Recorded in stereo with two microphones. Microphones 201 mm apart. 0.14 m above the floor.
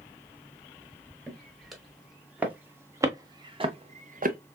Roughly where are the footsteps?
Centre.